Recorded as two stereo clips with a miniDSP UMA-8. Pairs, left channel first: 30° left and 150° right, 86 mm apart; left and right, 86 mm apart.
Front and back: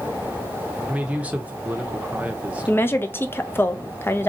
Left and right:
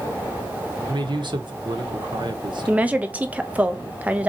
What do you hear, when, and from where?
0.9 s a man speaking: 80° right, 0.8 m
2.7 s a woman speaking: 25° right, 0.5 m